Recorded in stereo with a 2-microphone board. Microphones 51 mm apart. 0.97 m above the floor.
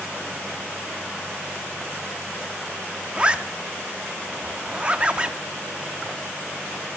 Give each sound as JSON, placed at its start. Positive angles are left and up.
{"t": 3.1, "sound": "a zipper", "side_deg": -20, "distance_m": 0.5}